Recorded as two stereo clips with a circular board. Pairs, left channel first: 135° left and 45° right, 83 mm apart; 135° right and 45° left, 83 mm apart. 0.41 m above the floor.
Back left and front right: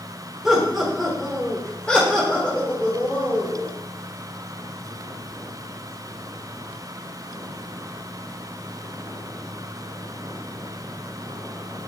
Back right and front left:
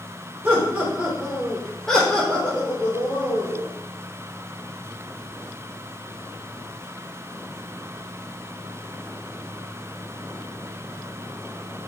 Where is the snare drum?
No snare drum in this recording.